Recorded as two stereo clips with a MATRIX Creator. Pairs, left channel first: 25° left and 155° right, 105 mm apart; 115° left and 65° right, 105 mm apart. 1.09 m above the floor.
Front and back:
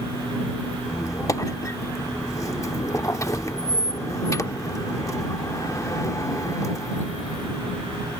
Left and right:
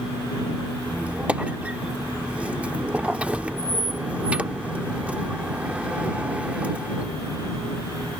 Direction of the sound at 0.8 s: Straight ahead.